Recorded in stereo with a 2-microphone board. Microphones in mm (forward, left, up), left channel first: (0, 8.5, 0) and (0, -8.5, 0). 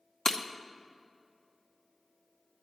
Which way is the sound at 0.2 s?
35° left (ahead or behind).